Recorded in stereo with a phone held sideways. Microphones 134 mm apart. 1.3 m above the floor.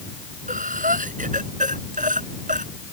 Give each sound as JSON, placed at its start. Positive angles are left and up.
{"t": 0.5, "sound": "breathing", "side_deg": -80}